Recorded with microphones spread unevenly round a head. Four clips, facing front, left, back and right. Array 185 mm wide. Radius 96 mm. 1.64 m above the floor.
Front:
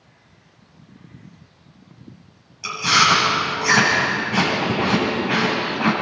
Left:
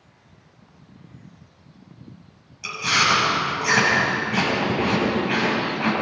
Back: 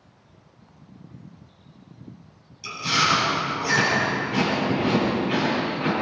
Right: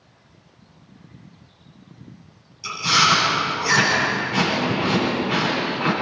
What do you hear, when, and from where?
2.6 s chewing: 20° left, 9 m